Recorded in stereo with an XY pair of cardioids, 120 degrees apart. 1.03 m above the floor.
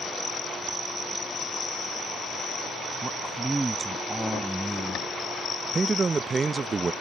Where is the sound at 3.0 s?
20° right; by 5.1 s 10° right.